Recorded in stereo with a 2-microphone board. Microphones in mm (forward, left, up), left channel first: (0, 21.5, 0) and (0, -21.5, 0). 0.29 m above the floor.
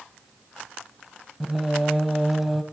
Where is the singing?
5° right (ahead or behind), 0.6 m.